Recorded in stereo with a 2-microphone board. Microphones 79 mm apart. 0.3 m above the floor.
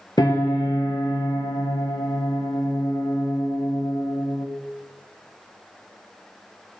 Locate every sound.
0.2 s a piano: 60° left (ahead or behind), 3 m